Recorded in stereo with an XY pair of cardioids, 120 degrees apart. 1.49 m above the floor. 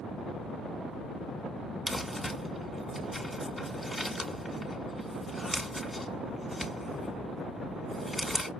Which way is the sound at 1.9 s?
5° left.